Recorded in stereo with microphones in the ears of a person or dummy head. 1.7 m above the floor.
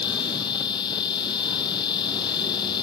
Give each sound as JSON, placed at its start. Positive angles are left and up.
{"t": 0.0, "sound": "a machine running", "side_deg": 20}